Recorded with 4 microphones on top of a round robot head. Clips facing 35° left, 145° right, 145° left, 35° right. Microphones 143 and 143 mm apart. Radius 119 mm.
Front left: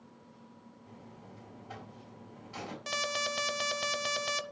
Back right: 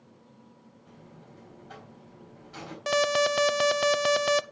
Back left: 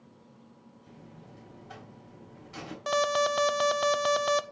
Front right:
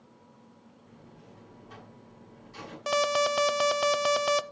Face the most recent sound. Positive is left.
turn(degrees=-120)